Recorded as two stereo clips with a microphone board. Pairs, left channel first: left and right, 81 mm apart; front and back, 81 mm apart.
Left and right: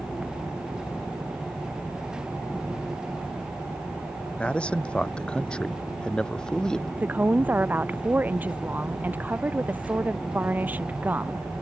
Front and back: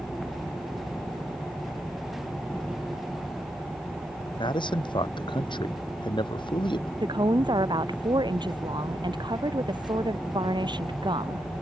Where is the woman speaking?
160° right.